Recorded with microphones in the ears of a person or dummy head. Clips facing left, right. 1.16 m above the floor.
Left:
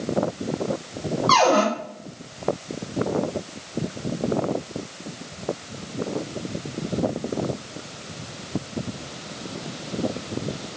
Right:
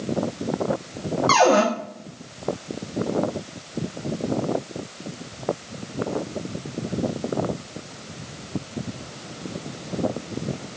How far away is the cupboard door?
About 0.7 m.